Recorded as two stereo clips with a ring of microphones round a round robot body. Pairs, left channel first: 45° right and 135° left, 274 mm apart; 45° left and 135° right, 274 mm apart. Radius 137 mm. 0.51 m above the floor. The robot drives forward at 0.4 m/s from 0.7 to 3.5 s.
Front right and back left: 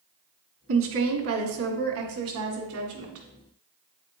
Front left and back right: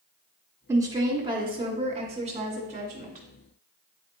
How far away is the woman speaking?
About 1.2 m.